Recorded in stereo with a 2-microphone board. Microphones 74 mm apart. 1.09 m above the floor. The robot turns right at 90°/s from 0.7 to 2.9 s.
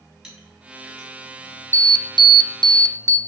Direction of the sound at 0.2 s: 10° right (ahead or behind).